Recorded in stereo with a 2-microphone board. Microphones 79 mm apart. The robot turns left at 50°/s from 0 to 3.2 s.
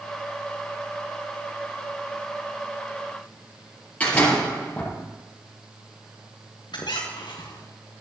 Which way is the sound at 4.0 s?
20° left (ahead or behind).